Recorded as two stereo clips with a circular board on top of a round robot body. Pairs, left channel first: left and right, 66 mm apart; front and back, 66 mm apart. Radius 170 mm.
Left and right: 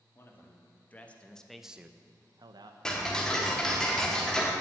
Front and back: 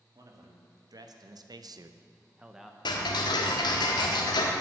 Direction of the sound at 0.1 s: 150° left.